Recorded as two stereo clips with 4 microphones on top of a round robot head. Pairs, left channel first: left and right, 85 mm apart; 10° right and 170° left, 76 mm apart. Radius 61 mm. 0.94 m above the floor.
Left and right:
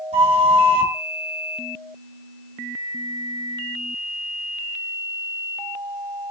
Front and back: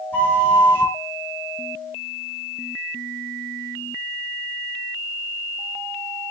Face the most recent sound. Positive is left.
turn(degrees=-85)